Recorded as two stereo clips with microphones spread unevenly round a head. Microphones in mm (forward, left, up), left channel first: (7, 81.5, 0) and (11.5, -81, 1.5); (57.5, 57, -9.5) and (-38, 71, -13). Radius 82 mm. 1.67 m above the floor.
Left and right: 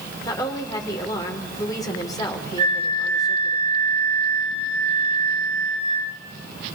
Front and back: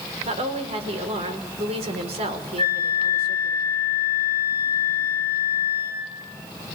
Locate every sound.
0.2 s a woman speaking: 160° left, 5.5 m
2.6 s a flute: 145° right, 6.5 m